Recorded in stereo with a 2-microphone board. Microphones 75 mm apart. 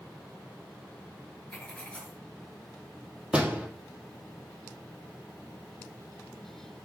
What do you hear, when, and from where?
1.5 s writing: 15° left (ahead or behind), 2.5 m
3.3 s a door slam: 15° right (ahead or behind), 3 m